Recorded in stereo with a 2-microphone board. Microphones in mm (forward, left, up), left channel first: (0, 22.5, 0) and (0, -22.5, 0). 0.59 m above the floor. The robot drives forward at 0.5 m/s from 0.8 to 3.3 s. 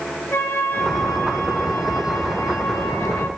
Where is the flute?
80° left, 3.5 m; by 3.3 s 65° left (ahead or behind), 3.5 m.